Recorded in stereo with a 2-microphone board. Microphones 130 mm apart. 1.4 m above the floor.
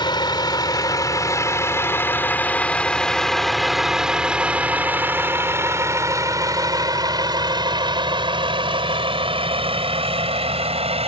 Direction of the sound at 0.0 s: 35° left (ahead or behind).